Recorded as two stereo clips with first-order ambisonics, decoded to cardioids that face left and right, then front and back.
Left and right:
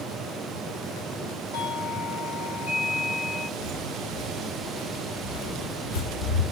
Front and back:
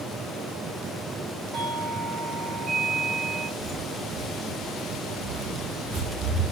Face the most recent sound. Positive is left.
turn(degrees=120)